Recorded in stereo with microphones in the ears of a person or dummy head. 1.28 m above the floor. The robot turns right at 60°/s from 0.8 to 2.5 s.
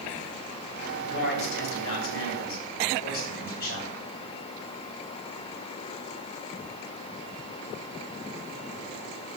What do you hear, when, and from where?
1.0 s a man speaking: 35° left, 4.5 m; by 4.0 s 125° left, 4.5 m